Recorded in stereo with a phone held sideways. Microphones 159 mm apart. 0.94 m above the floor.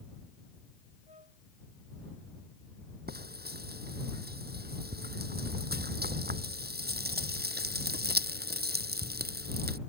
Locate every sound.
1.1 s a flute: 45° right (ahead or behind)
3.1 s frying: 85° right